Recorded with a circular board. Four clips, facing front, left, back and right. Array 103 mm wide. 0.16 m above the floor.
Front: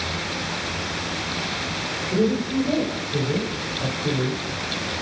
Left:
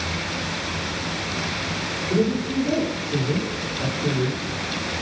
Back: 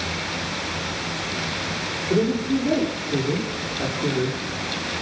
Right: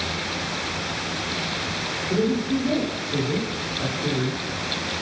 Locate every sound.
2.1 s a woman speaking: 175° right, 6.5 m